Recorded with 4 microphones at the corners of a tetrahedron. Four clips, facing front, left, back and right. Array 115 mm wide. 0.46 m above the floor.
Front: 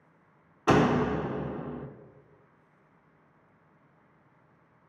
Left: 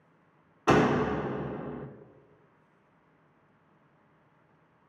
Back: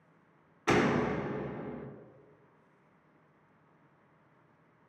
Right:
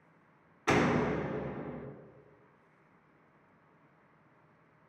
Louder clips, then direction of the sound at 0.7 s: Left 5 dB, front 4 dB; 45° left.